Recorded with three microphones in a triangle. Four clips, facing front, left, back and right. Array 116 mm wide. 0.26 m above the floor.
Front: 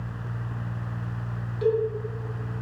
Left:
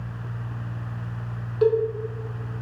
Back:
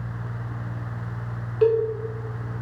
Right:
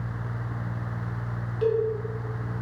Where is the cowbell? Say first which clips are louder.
Left 5 dB, back 5 dB; 135° left, 1.9 m.